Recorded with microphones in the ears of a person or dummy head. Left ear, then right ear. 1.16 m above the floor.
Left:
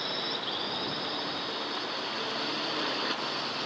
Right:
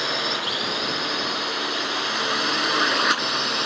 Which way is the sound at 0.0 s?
40° right (ahead or behind).